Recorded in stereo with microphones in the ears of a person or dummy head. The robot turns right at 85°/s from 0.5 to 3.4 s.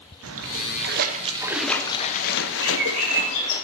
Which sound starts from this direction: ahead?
A bird, at 2.6 s.